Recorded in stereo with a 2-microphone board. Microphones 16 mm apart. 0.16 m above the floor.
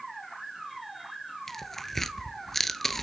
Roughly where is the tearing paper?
Centre.